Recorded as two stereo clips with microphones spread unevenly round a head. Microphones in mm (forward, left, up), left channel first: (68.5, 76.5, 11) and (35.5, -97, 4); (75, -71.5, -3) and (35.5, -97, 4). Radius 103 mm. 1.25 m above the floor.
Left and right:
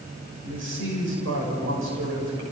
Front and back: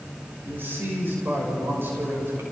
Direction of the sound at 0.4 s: 110° right.